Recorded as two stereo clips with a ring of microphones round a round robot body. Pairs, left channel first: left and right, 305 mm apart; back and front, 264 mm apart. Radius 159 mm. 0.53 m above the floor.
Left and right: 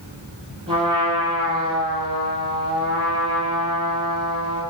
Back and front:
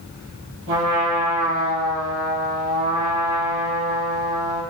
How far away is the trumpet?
About 3.5 m.